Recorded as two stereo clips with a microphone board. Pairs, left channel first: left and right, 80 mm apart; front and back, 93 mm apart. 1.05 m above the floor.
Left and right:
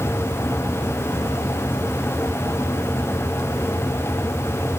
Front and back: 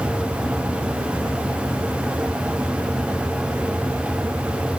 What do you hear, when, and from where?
Only background noise.